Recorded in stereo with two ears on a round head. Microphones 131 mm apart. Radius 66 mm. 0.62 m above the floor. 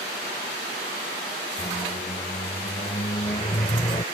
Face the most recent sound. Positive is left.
turn(degrees=30)  # may be behind; listen again after turning